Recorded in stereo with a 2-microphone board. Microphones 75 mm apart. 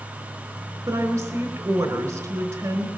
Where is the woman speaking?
40° right (ahead or behind), 4.5 m.